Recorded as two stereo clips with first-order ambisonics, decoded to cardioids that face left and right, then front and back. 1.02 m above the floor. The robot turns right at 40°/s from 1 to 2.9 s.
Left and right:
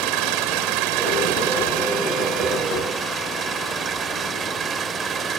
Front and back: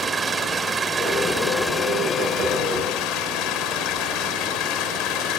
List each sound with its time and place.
0.0 s an engine running: 105° right; by 5.4 s 30° right